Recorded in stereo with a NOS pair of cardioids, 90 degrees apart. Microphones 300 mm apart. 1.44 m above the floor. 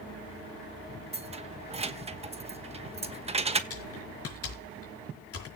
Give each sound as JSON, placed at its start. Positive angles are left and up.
{"t": 1.1, "sound": "keys jangling", "azimuth_deg": -20, "distance_m": 1.2}
{"t": 3.7, "sound": "typing on a keyboard", "azimuth_deg": 50, "distance_m": 6.0}